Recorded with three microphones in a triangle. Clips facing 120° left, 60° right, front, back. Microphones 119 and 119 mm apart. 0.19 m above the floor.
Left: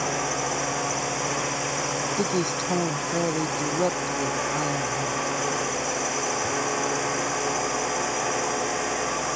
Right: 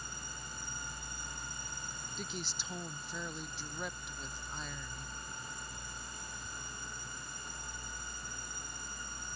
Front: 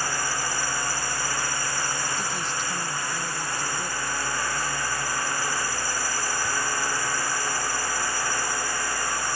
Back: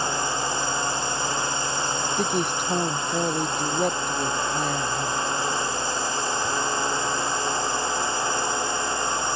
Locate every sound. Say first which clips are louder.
0.0 s a drone: left 23 dB, back 3 dB; 115° left
2.2 s a woman speaking: left 18 dB, back 6 dB; 150° left